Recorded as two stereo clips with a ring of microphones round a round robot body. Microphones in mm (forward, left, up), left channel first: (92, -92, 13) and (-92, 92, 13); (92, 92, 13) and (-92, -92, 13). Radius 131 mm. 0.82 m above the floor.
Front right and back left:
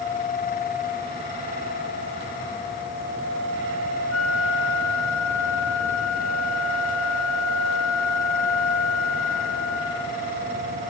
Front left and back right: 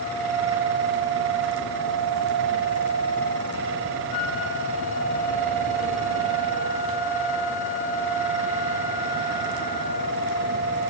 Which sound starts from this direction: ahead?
A flute, at 4.1 s.